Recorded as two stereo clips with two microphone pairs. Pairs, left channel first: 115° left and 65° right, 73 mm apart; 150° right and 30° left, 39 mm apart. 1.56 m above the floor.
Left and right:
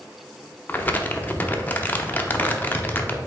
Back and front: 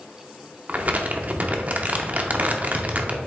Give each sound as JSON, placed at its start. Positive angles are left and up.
{"t": 0.7, "sound": "crumpling", "azimuth_deg": 60, "distance_m": 0.6}